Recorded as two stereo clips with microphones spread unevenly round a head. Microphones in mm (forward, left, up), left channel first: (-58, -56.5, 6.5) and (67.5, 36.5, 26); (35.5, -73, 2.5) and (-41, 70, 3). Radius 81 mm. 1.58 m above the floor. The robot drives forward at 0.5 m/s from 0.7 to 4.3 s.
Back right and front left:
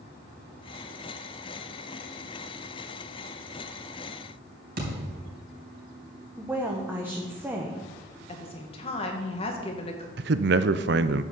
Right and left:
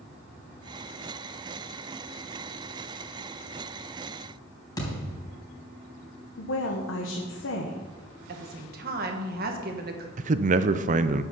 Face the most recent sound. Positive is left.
turn(degrees=70)